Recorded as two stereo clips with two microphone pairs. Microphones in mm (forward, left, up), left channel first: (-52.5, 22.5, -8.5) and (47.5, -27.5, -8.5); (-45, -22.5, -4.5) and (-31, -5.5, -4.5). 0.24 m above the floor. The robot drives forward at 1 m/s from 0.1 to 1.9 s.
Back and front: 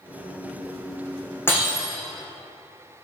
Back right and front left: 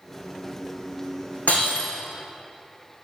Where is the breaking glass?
135° right, 5.5 m; by 1.9 s 140° right, 5.5 m.